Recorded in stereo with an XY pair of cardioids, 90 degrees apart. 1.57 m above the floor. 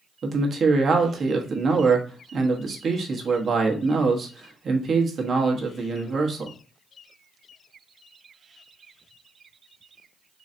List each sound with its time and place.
0.2 s a man speaking: 55° right, 1.1 m